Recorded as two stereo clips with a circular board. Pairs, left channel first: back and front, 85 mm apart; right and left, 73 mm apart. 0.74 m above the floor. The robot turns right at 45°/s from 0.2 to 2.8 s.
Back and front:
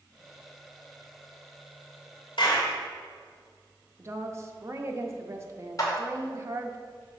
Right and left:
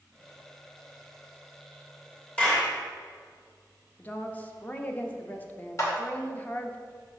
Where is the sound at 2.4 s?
165° right, 2 m; by 2.7 s 150° right, 2 m.